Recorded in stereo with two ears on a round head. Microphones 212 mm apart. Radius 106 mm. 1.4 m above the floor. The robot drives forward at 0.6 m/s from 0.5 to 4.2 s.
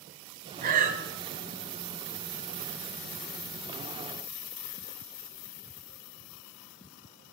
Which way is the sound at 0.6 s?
40° right (ahead or behind).